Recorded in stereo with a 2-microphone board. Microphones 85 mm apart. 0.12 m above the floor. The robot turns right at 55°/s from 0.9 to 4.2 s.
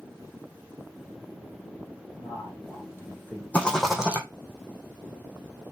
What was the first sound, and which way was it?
A man speaking, 100° left.